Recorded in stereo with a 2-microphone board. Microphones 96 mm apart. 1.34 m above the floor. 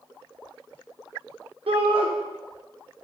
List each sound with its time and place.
1.7 s a shout: 70° right (ahead or behind), 1.1 m